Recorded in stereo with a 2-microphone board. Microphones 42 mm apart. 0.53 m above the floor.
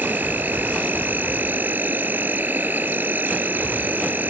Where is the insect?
50° right (ahead or behind).